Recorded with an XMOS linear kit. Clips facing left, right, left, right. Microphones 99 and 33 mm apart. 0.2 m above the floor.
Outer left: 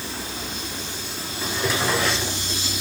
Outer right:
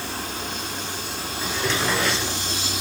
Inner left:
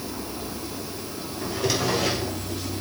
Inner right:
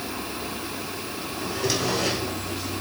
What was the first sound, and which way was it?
A drawer, 5° left (ahead or behind).